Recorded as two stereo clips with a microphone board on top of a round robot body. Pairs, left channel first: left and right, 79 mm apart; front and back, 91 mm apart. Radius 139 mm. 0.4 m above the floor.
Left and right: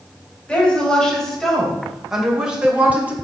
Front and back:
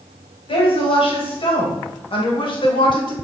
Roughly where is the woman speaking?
Ahead.